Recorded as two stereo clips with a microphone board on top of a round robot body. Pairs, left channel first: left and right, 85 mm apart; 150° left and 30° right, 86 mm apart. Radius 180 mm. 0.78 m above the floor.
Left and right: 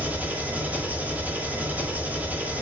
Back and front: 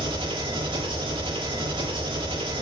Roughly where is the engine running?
Ahead.